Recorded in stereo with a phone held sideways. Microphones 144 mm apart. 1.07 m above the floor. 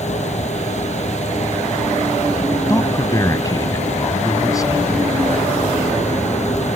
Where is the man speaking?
25° left (ahead or behind).